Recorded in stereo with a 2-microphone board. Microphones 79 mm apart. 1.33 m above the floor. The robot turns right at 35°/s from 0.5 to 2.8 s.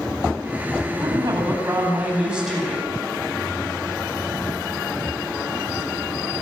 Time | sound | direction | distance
1.0 | a woman speaking | 60° right | 9.5 m